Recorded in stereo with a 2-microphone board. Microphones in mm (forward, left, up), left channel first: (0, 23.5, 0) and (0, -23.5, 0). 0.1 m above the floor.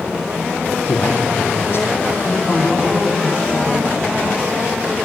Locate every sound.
0.9 s a man speaking: 55° left (ahead or behind), 4.5 m
2.2 s a man speaking: centre (ahead or behind), 9.5 m